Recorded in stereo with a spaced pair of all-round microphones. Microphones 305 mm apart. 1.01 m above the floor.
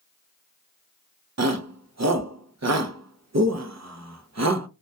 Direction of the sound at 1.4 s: 55° right (ahead or behind).